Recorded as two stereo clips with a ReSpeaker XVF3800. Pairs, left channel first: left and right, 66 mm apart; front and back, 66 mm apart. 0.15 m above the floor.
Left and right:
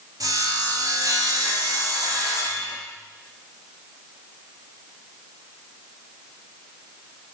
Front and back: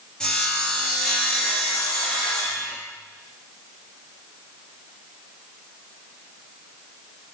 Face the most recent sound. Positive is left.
turn(degrees=-75)